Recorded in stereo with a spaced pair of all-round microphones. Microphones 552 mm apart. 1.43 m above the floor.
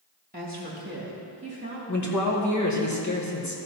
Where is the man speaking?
30° left (ahead or behind), 1.6 m.